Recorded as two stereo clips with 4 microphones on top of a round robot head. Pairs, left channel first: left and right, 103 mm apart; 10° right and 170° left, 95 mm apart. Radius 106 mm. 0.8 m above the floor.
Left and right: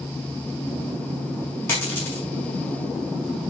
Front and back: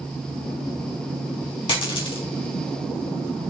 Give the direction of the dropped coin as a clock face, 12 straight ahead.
11 o'clock.